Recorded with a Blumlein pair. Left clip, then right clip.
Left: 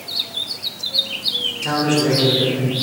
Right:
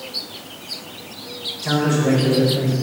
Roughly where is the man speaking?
Ahead left.